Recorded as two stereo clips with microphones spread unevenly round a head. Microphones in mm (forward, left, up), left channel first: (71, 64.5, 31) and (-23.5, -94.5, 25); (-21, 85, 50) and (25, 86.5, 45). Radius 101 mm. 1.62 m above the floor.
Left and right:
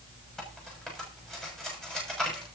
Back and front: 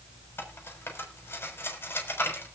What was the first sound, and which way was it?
Cutlery clinking, 145° left.